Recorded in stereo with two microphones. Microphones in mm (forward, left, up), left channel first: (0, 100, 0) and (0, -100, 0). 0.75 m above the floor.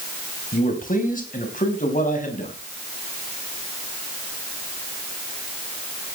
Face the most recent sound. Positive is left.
turn(degrees=45)  # may be behind; listen again after turning